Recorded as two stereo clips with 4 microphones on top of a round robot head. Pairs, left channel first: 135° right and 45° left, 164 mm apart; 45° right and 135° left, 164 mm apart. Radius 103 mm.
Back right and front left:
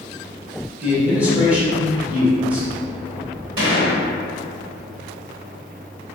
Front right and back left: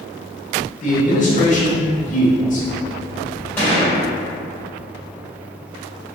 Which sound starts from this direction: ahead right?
A man speaking, at 0.8 s.